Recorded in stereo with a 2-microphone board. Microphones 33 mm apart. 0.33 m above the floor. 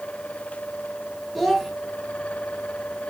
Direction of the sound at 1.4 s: 5° left (ahead or behind).